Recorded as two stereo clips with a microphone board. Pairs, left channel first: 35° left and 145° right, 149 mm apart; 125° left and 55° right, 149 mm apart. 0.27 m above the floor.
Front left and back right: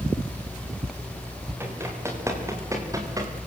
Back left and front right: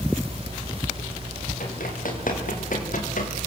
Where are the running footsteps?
140° left, 7.5 m; by 3.3 s 150° left, 6 m.